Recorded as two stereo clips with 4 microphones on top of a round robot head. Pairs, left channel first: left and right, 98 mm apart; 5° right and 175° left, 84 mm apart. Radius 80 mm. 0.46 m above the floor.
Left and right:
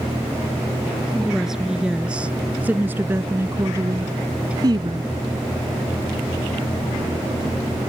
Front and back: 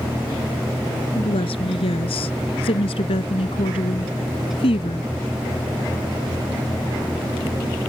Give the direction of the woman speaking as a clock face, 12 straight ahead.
12 o'clock.